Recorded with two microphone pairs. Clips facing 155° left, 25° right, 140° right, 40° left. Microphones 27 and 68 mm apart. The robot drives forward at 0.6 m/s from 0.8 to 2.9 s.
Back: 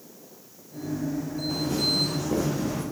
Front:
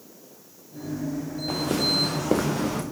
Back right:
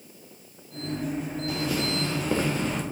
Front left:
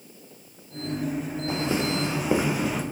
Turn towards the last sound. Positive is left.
turn(degrees=-45)